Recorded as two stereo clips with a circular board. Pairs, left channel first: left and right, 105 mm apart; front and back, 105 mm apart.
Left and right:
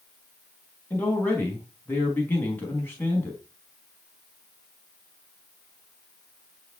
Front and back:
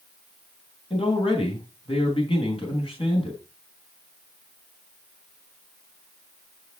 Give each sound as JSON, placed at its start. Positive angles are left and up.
{"t": 0.9, "sound": "a man speaking", "azimuth_deg": 25, "distance_m": 3.5}